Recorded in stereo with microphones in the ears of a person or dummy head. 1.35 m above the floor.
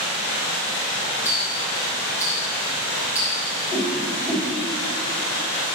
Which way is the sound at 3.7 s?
15° right (ahead or behind).